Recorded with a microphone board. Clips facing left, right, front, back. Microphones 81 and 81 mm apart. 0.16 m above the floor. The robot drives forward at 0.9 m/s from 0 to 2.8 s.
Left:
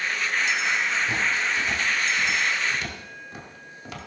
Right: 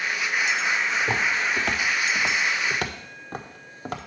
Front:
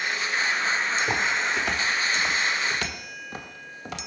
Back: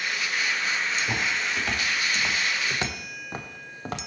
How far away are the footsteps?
About 3 m.